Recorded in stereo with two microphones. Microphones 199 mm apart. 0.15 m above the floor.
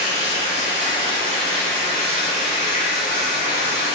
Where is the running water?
60° right (ahead or behind), 1.7 m.